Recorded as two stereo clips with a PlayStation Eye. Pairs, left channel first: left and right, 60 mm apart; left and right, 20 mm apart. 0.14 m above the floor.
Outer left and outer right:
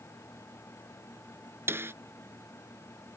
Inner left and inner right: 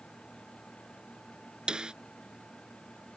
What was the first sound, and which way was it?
A snare drum, 40° right (ahead or behind).